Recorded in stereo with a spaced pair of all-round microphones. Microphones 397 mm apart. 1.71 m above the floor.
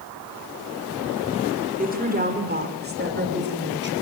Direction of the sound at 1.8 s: 20° right (ahead or behind).